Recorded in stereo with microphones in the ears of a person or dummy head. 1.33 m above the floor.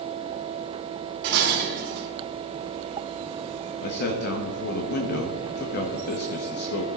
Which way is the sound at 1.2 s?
65° right (ahead or behind).